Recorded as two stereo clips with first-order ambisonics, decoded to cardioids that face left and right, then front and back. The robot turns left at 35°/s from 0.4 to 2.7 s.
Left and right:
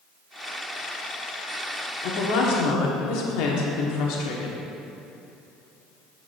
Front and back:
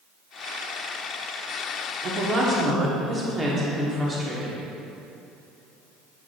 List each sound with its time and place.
2.0 s a woman speaking: 130° left, 1.3 m; by 4.6 s 105° left, 1.3 m